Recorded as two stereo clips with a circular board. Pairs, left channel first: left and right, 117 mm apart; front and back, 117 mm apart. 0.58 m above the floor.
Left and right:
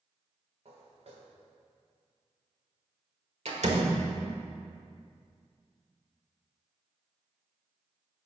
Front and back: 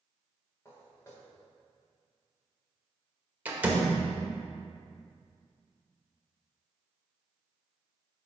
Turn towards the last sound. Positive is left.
turn(degrees=-105)